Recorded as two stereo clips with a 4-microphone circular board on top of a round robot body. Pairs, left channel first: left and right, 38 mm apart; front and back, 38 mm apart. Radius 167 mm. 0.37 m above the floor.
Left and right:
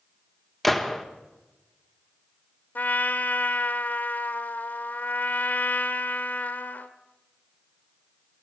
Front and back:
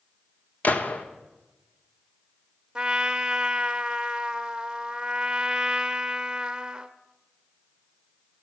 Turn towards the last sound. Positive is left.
turn(degrees=110)